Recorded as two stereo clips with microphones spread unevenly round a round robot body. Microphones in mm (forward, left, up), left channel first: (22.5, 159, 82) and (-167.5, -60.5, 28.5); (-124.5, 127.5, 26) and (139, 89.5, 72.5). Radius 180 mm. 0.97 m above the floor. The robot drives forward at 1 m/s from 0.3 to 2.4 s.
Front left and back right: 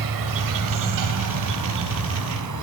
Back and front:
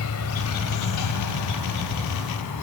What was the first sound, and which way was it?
An insect, 140° right.